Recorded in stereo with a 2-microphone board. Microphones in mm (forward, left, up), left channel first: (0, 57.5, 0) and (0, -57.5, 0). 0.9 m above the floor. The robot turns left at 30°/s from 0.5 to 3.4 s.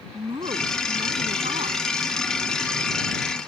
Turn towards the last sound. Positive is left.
turn(degrees=-140)